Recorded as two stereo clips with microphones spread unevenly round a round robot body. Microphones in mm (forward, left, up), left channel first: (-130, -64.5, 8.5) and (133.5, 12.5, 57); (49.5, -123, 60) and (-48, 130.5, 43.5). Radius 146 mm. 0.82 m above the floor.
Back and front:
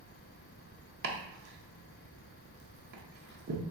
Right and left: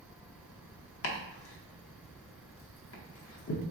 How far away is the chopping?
About 0.8 m.